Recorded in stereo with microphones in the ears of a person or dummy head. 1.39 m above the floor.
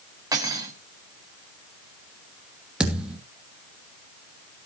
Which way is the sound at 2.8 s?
Centre (ahead or behind).